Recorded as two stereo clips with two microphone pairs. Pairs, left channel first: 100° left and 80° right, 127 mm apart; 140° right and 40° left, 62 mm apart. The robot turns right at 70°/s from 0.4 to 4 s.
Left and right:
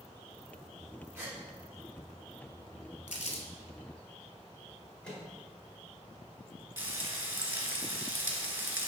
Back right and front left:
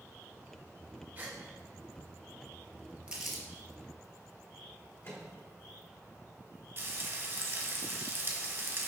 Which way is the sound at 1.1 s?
15° right.